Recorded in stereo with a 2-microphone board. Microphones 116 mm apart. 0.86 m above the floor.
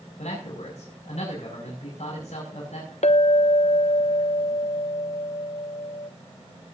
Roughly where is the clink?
Left.